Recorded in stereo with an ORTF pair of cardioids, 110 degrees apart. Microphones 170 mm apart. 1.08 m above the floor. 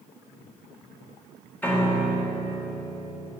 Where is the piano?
10° left, 1.7 m.